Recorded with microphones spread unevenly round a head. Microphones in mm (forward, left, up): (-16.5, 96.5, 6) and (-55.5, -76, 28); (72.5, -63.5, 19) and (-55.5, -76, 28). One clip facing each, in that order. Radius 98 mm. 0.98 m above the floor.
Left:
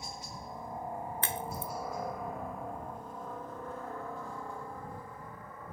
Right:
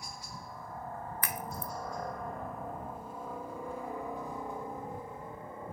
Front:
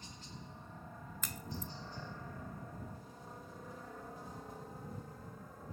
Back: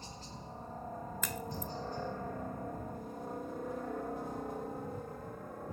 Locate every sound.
0.0 s a helicopter: 130° left; by 5.7 s 165° right
1.2 s a crack: 140° left